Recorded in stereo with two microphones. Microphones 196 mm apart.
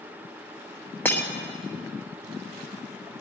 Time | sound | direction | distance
1.1 | breaking glass | 10° left (ahead or behind) | 1.3 m